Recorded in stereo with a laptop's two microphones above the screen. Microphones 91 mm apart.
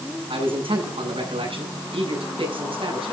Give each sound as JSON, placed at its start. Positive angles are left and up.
{"t": 0.3, "sound": "a man speaking", "side_deg": -85, "distance_m": 7.5}